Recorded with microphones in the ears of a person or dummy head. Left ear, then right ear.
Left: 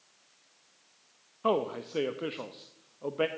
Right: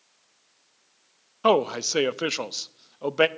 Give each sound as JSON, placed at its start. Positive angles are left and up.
{"t": 1.4, "sound": "a man speaking", "side_deg": -65, "distance_m": 0.5}